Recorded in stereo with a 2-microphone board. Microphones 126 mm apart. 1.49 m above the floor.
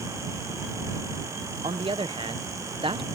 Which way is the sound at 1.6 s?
45° right (ahead or behind).